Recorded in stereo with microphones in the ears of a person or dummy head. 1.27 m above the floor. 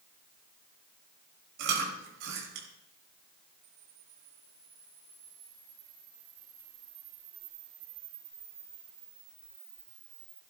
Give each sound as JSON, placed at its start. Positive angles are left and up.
{"t": 1.6, "sound": "chewing", "side_deg": -80, "distance_m": 5.0}
{"t": 3.6, "sound": "a camera shutter", "side_deg": -75, "distance_m": 6.5}